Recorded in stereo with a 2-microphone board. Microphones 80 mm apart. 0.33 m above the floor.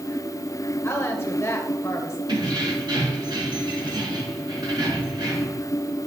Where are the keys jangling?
70° right (ahead or behind), 3 m.